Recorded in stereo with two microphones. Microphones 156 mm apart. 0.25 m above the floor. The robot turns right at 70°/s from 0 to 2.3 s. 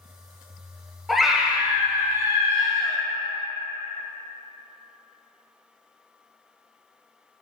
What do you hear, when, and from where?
1.1 s a scream: centre (ahead or behind), 1.0 m; by 3.0 s 20° right (ahead or behind), 1.0 m